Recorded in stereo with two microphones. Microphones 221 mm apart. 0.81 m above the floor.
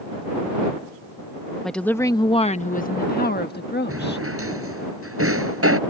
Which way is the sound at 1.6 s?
Centre (ahead or behind).